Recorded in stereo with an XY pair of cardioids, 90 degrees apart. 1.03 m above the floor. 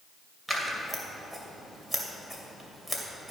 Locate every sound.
0.5 s scissors: 5° right, 2.5 m